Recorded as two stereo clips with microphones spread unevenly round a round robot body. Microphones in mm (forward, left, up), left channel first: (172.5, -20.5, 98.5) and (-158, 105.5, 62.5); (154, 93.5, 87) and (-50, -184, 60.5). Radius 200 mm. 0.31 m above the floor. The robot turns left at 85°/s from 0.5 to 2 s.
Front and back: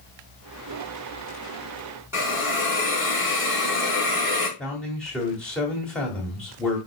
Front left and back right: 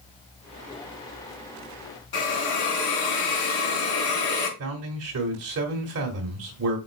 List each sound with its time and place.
2.1 s a hiss: 75° left, 4 m
4.6 s a man speaking: 115° right, 1.7 m